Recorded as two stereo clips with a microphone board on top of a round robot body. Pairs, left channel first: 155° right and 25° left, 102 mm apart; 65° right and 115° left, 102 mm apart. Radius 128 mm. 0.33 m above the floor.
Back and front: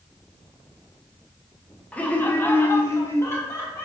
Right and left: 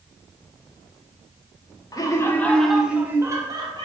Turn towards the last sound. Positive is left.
turn(degrees=140)